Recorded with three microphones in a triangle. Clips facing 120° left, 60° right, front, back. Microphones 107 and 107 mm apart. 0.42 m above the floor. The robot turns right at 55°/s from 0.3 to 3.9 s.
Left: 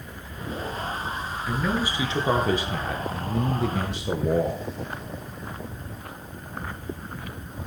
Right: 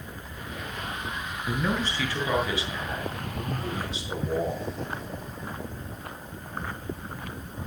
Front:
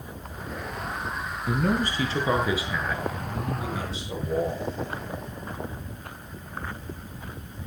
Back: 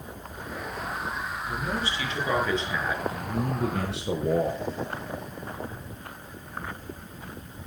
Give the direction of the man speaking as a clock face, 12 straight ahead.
11 o'clock.